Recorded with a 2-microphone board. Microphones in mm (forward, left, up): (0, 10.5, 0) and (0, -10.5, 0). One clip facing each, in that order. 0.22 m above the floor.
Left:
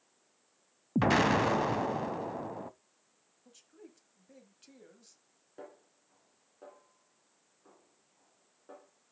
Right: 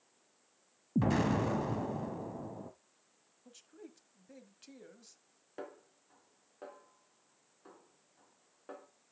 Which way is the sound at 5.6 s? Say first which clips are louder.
Right 3 dB; 30° right (ahead or behind).